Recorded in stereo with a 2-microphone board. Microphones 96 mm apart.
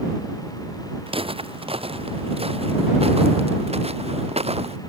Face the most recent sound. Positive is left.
turn(degrees=-85)